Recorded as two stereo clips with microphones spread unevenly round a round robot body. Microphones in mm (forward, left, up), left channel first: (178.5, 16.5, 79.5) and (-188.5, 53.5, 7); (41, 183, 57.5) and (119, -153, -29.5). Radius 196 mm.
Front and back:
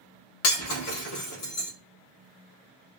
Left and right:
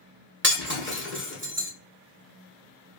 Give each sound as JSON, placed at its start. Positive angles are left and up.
{"t": 0.4, "sound": "breaking glass", "azimuth_deg": -20, "distance_m": 1.6}